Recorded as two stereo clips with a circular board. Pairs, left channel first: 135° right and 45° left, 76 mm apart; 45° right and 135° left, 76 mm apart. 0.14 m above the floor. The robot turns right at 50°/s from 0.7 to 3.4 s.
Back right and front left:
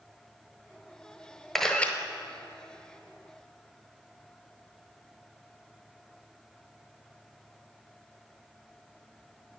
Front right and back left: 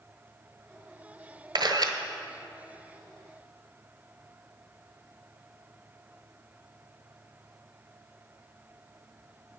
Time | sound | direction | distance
1.6 | a camera shutter | 140° left | 0.9 m